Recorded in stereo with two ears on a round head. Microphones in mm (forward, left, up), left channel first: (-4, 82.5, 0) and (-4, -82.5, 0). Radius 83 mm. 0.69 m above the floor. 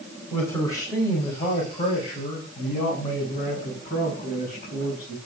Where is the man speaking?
15° left (ahead or behind), 3.5 m; by 5.2 s 50° left (ahead or behind), 7 m.